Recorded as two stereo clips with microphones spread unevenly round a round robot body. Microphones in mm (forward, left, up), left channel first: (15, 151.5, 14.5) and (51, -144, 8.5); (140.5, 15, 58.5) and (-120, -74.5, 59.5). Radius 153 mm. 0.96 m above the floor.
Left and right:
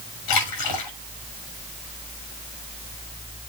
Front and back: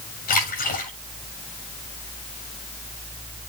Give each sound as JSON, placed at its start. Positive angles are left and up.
{"t": 0.3, "sound": "a splash", "azimuth_deg": 80, "distance_m": 7.0}